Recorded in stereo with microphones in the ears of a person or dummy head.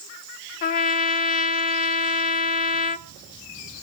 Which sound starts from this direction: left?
A trumpet, at 0.6 s.